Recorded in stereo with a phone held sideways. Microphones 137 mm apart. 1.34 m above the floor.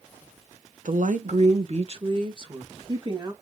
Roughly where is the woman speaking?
Right.